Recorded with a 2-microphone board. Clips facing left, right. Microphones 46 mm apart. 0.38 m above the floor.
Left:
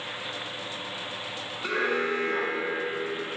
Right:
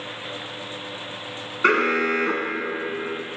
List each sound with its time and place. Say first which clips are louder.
1.6 s an alarm: right 8 dB; 50° right (ahead or behind), 3 m